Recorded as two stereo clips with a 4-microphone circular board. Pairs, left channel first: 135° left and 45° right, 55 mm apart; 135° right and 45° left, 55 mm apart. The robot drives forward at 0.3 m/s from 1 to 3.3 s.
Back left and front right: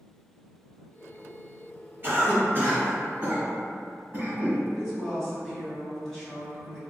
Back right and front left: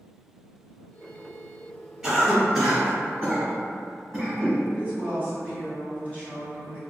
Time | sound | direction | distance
2.0 | a cough | 40° right | 1.5 m
4.7 | a woman speaking | 135° right | 1.7 m